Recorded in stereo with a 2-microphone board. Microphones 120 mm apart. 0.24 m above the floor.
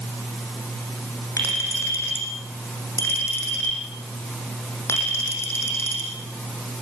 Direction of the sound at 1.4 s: 20° left (ahead or behind).